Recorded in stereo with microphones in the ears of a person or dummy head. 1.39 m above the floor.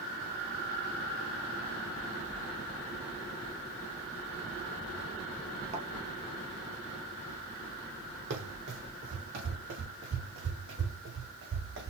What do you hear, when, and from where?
5.7 s a thud: 50° right (ahead or behind), 2 m
8.3 s running footsteps: 65° right (ahead or behind), 4 m; by 11.9 s 70° right (ahead or behind), 4.5 m